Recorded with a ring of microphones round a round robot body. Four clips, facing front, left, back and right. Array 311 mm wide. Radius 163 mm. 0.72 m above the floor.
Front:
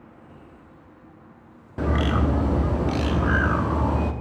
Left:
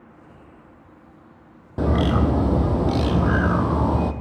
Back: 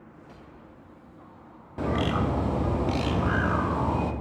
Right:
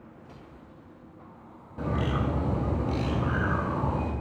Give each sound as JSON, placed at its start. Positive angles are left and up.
{"t": 1.8, "sound": "a bird", "azimuth_deg": 75, "distance_m": 0.8}